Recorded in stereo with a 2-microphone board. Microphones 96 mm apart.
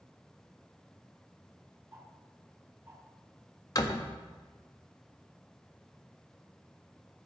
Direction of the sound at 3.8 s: 40° left (ahead or behind).